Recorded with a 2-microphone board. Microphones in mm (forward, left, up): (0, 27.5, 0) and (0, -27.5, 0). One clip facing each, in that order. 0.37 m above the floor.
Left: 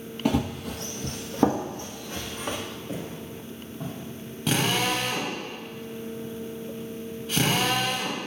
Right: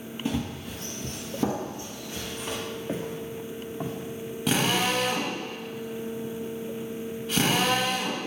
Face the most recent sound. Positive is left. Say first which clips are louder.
# even
turn(degrees=0)  # may be behind; listen again after turning